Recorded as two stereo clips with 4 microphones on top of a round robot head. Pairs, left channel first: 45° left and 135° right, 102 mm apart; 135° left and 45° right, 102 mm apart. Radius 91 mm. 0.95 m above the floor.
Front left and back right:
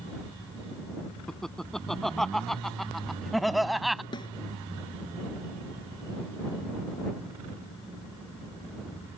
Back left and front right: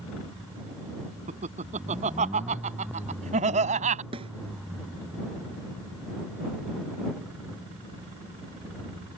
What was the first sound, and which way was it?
Laughter, 40° right.